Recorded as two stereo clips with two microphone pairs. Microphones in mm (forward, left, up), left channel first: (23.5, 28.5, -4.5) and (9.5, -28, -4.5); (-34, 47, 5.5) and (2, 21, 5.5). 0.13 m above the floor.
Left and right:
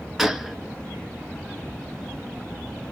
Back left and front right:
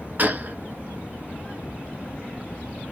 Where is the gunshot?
20° right, 0.7 m.